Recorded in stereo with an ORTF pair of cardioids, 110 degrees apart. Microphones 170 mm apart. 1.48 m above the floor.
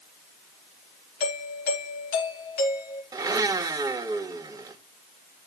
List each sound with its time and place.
1.2 s a doorbell: 65° left, 4.5 m
3.1 s a blender: 20° right, 1.6 m